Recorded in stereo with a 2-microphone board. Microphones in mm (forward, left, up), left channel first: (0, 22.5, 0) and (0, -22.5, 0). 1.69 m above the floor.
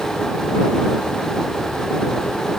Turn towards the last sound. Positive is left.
No sound to turn to.